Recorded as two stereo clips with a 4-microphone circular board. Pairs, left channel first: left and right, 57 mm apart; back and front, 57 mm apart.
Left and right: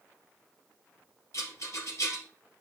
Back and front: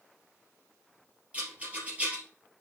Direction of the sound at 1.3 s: 65° left.